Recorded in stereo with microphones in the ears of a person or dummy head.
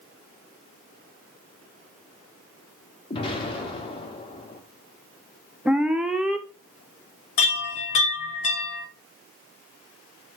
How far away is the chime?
About 0.8 m.